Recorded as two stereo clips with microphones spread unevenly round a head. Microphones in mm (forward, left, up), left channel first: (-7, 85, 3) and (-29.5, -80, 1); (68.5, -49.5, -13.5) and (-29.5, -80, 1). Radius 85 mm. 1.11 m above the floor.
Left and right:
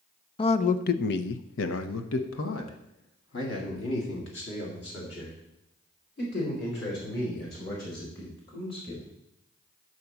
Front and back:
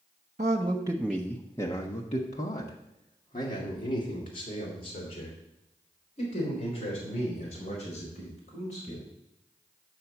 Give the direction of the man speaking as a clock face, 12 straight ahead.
7 o'clock.